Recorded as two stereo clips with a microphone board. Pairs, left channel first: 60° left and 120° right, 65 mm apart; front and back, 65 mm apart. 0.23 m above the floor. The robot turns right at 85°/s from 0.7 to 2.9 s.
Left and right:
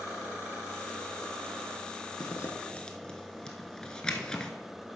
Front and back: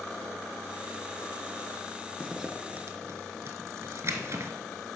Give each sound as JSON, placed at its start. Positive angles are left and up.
{"t": 2.2, "sound": "a zipper", "azimuth_deg": 75, "distance_m": 0.8}